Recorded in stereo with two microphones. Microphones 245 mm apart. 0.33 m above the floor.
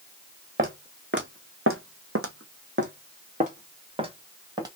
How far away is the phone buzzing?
I don't hear a phone buzzing.